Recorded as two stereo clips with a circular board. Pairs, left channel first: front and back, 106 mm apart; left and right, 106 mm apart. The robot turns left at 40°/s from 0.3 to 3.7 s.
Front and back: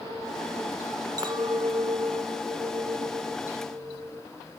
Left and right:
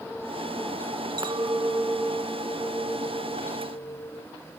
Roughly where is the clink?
Behind right.